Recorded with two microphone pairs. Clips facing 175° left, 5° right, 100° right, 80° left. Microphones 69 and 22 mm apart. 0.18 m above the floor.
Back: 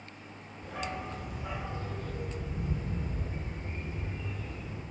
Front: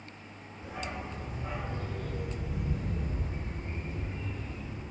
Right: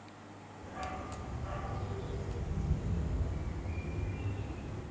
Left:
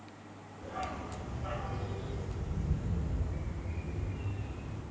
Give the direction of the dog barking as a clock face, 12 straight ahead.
10 o'clock.